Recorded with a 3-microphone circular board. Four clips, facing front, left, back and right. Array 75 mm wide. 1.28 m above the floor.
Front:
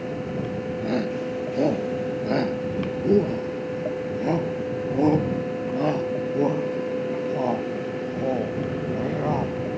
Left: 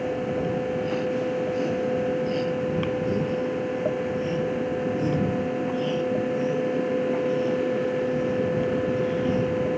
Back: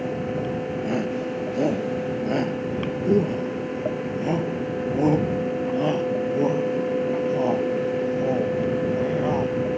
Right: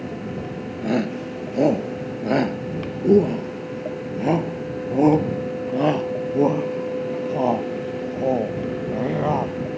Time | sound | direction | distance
0.8 | a shout | 85° right | ?